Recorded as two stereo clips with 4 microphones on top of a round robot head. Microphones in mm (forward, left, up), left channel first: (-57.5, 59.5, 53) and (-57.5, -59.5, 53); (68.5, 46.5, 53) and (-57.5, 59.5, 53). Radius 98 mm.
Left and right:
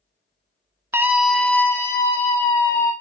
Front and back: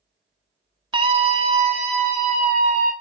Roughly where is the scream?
Behind right.